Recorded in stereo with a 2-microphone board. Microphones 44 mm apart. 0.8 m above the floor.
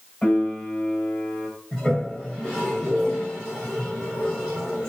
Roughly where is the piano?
Left.